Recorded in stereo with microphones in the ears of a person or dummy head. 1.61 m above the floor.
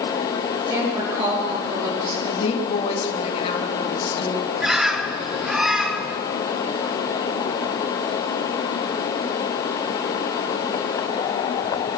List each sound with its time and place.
0.7 s a woman speaking: 30° right (ahead or behind), 4 m
2.3 s a woman speaking: 30° left (ahead or behind), 2.5 m
4.6 s a bird: 5° right (ahead or behind), 1.4 m